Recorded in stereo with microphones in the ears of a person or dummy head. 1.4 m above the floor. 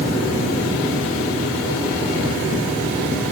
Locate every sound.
Only background noise.